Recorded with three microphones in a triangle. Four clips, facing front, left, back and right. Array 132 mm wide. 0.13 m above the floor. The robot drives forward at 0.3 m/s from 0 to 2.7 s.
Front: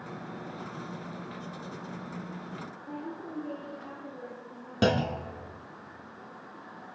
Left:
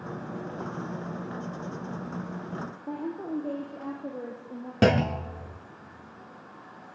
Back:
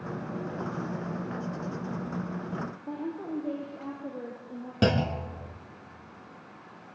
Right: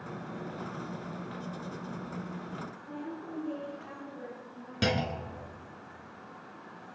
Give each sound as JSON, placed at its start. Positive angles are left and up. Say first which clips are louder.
{"t": 2.9, "sound": "a woman speaking", "louder": "left 9 dB, back 3 dB", "azimuth_deg": 110, "distance_m": 3.0}
{"t": 4.8, "sound": "a clunk", "louder": "left 8 dB, even", "azimuth_deg": 85, "distance_m": 1.0}